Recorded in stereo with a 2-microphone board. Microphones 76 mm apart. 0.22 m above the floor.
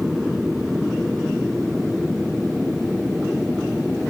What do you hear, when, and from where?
0.0 s an aircraft: 5° right (ahead or behind); by 4.1 s centre (ahead or behind)